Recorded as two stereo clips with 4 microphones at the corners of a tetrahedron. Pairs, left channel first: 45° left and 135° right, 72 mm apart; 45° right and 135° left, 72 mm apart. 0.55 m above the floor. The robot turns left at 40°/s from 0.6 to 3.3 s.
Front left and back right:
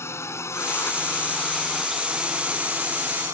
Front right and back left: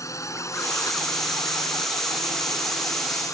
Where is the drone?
5° right; by 3.3 s 90° right.